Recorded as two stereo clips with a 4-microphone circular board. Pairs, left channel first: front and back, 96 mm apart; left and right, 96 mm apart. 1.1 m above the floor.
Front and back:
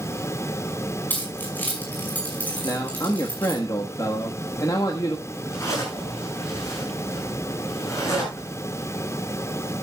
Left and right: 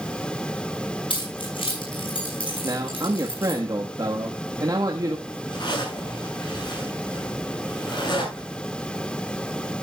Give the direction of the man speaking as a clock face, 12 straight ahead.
2 o'clock.